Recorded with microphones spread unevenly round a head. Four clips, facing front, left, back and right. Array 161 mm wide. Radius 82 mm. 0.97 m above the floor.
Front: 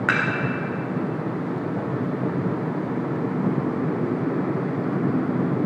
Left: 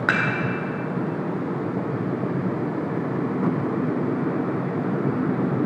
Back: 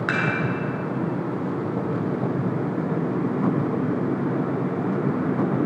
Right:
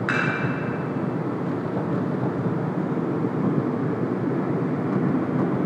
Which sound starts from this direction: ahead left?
Dishes clattering, at 0.1 s.